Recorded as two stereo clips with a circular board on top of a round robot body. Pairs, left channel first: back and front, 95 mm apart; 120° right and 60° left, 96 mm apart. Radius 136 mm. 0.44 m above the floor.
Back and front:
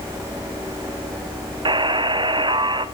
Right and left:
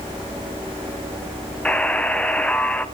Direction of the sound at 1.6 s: 40° right.